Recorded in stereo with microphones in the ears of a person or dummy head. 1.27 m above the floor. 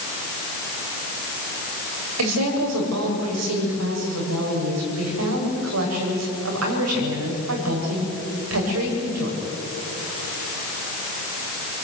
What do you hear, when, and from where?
2.2 s a woman speaking: 80° right, 7.5 m